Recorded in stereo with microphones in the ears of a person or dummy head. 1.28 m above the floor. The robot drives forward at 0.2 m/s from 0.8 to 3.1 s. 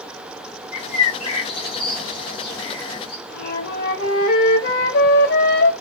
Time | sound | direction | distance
0.7 | a bird | 40° left (ahead or behind) | 0.7 m
3.3 | a flute | 65° left (ahead or behind) | 0.8 m